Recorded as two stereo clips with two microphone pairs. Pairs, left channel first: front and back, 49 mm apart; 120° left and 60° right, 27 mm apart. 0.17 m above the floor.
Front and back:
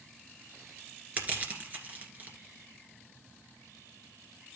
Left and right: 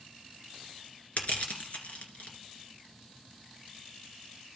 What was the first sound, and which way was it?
Crushing, 130° left.